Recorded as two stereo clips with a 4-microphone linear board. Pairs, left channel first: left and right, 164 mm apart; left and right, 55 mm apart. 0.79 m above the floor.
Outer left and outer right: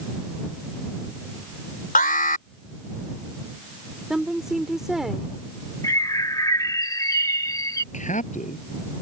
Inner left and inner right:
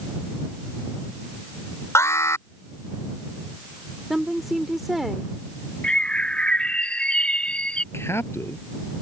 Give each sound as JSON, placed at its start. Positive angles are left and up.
{"t": 1.9, "sound": "an alarm", "side_deg": 65}
{"t": 4.1, "sound": "a woman speaking", "side_deg": -5}
{"t": 5.8, "sound": "a bird", "side_deg": 25}
{"t": 7.9, "sound": "a man speaking", "side_deg": 55}